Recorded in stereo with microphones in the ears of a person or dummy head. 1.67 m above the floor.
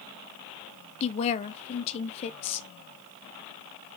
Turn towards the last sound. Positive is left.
turn(degrees=35)  # may be behind; listen again after turning